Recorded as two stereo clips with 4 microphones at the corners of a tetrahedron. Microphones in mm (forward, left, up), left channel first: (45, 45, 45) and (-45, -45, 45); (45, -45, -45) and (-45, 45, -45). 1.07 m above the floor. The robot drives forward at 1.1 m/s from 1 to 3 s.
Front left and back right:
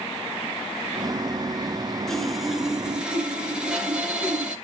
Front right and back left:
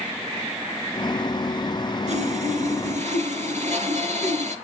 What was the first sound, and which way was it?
Sawing, 130° left.